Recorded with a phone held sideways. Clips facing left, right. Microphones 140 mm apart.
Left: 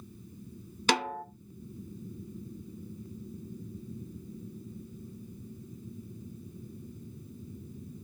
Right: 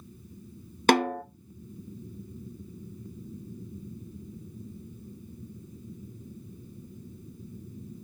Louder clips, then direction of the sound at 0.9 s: Right 7 dB; 55° right (ahead or behind).